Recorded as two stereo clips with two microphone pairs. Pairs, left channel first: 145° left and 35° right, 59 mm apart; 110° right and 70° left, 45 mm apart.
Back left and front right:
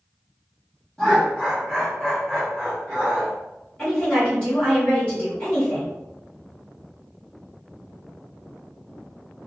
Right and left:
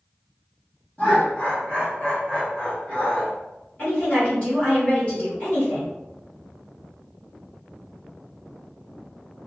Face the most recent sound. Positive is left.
turn(degrees=-160)